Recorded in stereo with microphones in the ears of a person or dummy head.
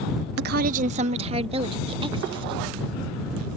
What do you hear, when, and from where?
0.4 s a woman speaking: 55° right (ahead or behind); by 2.6 s 25° right (ahead or behind)